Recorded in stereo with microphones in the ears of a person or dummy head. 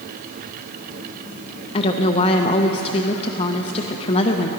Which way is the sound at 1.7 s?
35° left (ahead or behind).